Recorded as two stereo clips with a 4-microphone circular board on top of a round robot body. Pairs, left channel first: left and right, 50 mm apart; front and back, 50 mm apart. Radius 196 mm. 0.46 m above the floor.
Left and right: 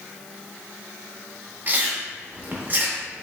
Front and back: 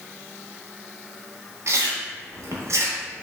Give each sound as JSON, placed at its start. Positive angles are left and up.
{"t": 1.7, "sound": "chewing", "azimuth_deg": -150, "distance_m": 0.8}